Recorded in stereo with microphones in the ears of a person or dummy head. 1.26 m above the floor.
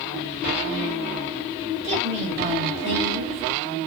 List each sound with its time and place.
1.8 s a woman speaking: 30° right (ahead or behind), 1.8 m